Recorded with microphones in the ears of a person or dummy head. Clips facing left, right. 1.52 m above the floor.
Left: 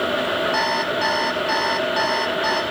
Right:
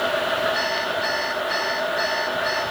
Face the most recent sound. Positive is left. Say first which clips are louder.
# left 3 dB
turn(degrees=80)